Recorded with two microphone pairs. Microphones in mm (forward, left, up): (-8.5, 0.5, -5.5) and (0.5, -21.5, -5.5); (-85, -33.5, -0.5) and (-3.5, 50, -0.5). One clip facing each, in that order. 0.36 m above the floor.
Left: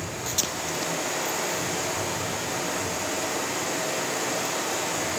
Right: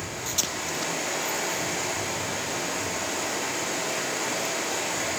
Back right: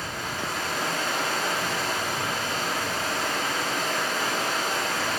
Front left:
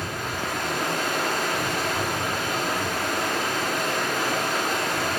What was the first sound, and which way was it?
Running water, 10° left.